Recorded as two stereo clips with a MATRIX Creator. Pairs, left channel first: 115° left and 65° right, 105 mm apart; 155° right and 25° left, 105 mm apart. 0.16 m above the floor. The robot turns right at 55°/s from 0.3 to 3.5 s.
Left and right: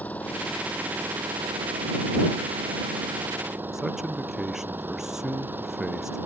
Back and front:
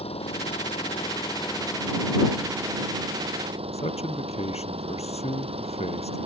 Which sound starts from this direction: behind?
An engine running, at 0.0 s.